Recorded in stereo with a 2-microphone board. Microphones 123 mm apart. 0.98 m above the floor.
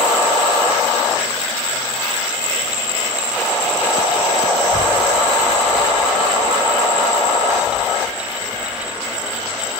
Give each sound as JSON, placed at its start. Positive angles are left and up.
{"t": 4.7, "sound": "a child speaking", "side_deg": 75, "distance_m": 1.1}